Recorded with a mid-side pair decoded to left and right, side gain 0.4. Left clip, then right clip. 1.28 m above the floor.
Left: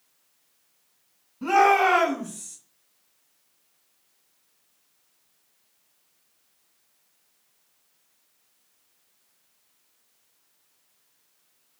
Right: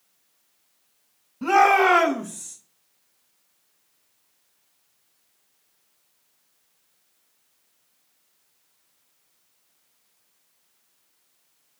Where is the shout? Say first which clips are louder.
Right 2 dB; 35° right, 1.2 m; by 2.6 s 75° right, 0.7 m.